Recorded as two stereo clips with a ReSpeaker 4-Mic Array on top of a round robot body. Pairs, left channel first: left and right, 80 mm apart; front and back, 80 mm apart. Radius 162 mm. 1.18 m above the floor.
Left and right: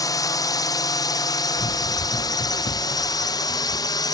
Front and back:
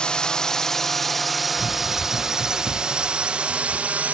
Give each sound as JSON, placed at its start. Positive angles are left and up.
{"t": 0.0, "sound": "a drone", "azimuth_deg": 75}
{"t": 1.6, "sound": "running footsteps", "azimuth_deg": 110}